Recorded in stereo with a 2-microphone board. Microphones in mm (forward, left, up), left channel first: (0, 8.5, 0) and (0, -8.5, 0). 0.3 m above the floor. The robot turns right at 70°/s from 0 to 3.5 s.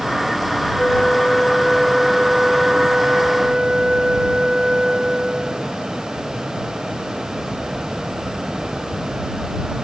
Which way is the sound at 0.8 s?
105° left.